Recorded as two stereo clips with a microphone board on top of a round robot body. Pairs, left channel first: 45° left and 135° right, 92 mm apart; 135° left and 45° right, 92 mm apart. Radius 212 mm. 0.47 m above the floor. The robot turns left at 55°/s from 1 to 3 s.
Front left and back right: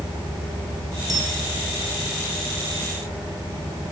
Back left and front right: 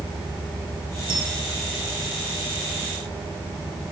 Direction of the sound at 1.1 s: 85° right.